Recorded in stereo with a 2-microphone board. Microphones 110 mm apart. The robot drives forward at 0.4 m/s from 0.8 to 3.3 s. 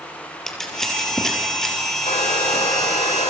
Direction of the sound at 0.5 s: 5° left (ahead or behind).